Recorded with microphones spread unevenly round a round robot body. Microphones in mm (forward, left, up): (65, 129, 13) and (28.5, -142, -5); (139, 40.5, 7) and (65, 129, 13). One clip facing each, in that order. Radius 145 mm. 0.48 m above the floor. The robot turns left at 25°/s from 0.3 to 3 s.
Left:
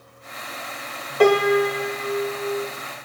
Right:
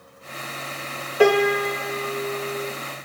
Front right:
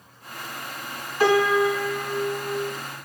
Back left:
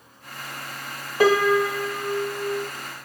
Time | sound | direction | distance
1.2 | a piano | straight behind | 0.9 m